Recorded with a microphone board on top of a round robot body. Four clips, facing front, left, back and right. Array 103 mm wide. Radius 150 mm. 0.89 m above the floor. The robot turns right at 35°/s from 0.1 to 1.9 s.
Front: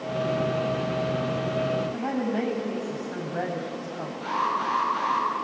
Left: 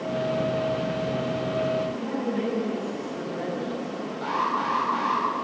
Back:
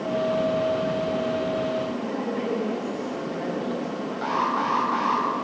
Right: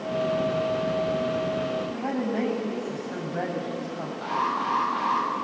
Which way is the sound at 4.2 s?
175° left.